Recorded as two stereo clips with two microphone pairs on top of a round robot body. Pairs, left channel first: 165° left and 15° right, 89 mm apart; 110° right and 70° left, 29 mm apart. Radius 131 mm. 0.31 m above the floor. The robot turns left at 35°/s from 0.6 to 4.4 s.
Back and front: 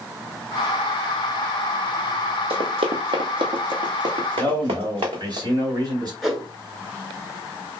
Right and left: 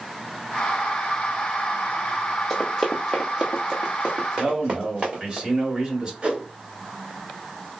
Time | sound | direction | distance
2.5 | running footsteps | 25° right | 0.7 m
4.4 | a man speaking | 10° left | 1.7 m
6.2 | a whoosh | 70° left | 1.5 m